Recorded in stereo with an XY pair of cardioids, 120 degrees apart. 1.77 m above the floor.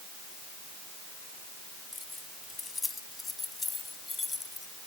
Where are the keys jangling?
15° left; by 4.7 s 20° left.